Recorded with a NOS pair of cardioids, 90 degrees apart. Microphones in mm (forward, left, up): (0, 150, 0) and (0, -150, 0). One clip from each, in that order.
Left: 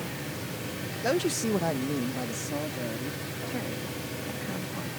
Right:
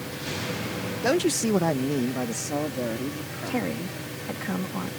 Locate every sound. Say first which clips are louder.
1.0 s a man speaking: right 4 dB; 20° right; by 3.8 s 45° right
3.5 s a woman speaking: right 7 dB; 55° right